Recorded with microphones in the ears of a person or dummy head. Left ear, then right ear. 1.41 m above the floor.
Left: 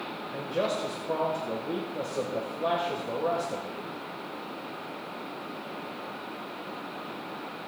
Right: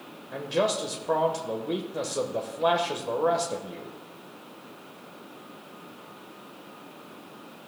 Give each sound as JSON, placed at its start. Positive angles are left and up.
{"t": 0.3, "sound": "a man speaking", "side_deg": -35, "distance_m": 1.1}